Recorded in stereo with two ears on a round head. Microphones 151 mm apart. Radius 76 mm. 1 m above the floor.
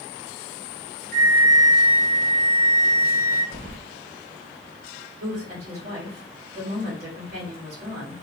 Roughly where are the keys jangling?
Right.